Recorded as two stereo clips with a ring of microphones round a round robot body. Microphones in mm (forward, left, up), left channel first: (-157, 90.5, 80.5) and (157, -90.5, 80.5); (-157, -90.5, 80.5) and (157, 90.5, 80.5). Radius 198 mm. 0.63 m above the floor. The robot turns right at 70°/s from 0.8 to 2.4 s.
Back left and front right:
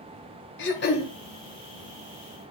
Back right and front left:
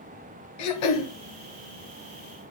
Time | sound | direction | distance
0.6 | throat clearing | 150° right | 1.7 m